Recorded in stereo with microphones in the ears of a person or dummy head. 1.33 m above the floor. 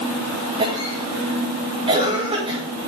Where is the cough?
25° right (ahead or behind), 5.5 m.